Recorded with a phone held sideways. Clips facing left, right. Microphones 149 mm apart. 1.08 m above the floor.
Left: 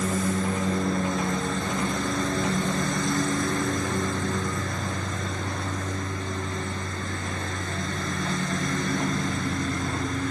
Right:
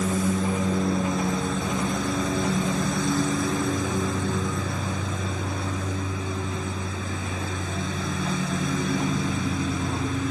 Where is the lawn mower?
5° right (ahead or behind).